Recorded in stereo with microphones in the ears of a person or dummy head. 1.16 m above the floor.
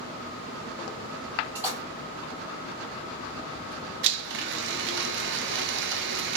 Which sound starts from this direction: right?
A blender, at 4.0 s.